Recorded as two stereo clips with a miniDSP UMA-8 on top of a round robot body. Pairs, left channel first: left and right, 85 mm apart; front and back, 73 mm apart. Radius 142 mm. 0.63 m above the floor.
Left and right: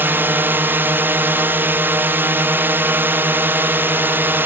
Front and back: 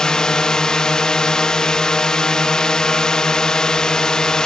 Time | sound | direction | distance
0.0 | a drone | 70° right | ?